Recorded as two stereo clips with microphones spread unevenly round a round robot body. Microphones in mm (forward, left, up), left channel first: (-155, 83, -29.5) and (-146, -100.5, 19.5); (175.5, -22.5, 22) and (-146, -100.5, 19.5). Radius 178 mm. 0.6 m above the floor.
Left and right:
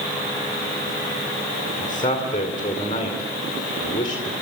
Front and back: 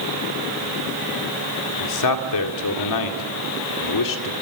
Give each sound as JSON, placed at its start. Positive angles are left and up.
{"t": 1.8, "sound": "a man speaking", "azimuth_deg": 35, "distance_m": 2.0}